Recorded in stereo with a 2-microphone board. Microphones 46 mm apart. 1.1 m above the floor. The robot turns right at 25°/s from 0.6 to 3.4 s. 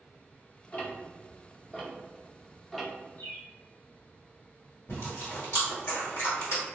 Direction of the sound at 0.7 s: 35° left (ahead or behind).